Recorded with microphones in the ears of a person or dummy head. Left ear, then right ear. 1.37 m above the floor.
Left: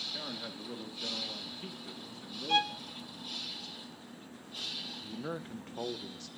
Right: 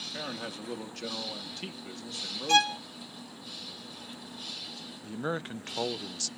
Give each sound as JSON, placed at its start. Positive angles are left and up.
{"t": 0.1, "sound": "a man speaking", "side_deg": -80, "distance_m": 2.0}
{"t": 2.5, "sound": "a violin", "side_deg": -85, "distance_m": 0.9}
{"t": 5.0, "sound": "a man speaking", "side_deg": -55, "distance_m": 0.6}